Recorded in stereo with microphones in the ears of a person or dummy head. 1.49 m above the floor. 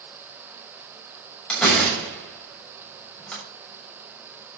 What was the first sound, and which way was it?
A door slam, 10° left (ahead or behind).